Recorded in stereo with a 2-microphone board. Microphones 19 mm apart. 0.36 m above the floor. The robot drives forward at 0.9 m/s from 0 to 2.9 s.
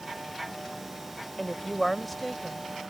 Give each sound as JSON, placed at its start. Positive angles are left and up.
{"t": 1.4, "sound": "a woman speaking", "side_deg": 10}